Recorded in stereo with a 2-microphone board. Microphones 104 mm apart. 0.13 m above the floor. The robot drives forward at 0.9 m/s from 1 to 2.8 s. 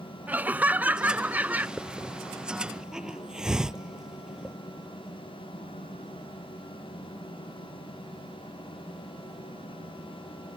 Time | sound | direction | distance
0.3 | laughter | 15° right (ahead or behind) | ?
1.8 | a hiss | 10° right (ahead or behind) | ?